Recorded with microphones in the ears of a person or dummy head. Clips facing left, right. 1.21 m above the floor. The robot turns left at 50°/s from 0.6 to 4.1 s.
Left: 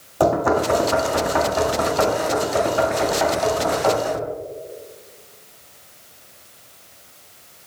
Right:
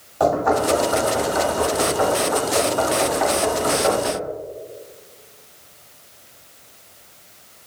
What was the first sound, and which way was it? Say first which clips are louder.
Knocking: even; 40° left (ahead or behind).